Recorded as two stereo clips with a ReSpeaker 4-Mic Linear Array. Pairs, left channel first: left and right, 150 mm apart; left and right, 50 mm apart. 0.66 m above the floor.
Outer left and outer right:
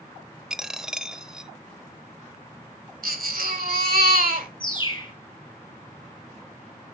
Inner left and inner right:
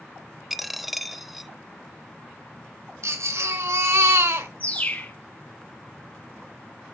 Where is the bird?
30° left (ahead or behind), 2 m.